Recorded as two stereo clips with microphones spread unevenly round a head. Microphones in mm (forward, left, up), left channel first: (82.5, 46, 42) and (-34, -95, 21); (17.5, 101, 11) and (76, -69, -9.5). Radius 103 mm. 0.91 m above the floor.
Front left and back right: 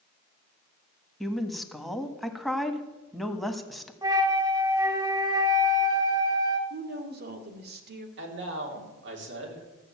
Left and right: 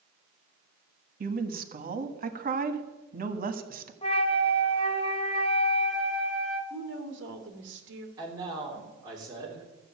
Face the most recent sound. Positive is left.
turn(degrees=-140)